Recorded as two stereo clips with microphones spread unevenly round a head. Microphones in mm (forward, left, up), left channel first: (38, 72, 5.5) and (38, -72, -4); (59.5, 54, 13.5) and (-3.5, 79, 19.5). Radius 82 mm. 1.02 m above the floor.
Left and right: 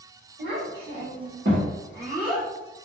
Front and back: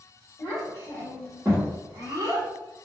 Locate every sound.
0.4 s a child speaking: 90° right, 1.9 m; by 2.5 s 170° left, 0.8 m